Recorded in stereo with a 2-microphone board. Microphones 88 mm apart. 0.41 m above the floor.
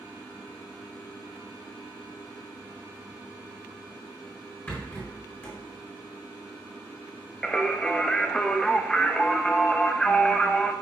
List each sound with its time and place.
4.7 s a rattle: 20° left (ahead or behind), 4 m
7.4 s singing: 10° left (ahead or behind), 0.8 m